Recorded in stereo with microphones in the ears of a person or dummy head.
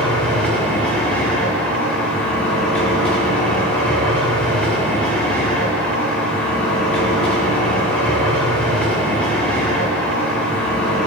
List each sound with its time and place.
0.0 s a machine running: 5° left (ahead or behind), 1.7 m